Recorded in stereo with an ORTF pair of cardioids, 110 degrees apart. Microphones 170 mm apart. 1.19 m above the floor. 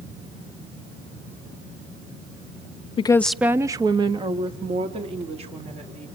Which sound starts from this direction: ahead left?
A woman speaking, at 3.0 s.